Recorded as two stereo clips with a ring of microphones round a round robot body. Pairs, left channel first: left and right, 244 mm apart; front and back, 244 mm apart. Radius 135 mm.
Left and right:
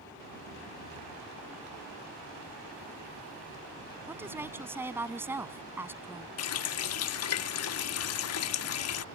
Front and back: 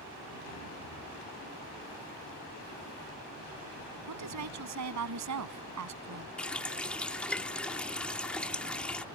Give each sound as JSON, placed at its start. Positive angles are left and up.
{"t": 4.1, "sound": "a woman speaking", "azimuth_deg": -170}
{"t": 6.4, "sound": "a running tap", "azimuth_deg": 85}